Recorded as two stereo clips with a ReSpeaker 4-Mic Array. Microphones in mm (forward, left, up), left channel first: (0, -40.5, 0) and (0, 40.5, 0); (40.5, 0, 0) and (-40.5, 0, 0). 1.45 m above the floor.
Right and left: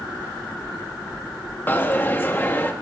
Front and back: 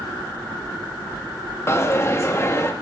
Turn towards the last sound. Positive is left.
turn(degrees=-40)